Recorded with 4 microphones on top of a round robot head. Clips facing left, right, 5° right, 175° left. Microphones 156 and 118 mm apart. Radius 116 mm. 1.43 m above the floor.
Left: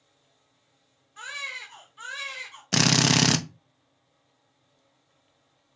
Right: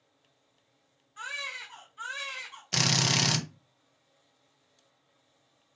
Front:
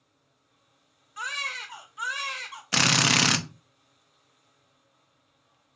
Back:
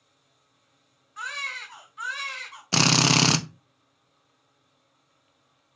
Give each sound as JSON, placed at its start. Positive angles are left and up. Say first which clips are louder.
{"t": 1.2, "sound": "a baby crying", "louder": "even, front 1 dB", "azimuth_deg": 65, "distance_m": 1.0}
{"t": 2.7, "sound": "a drill", "louder": "left 8 dB, back 3 dB", "azimuth_deg": 115, "distance_m": 0.7}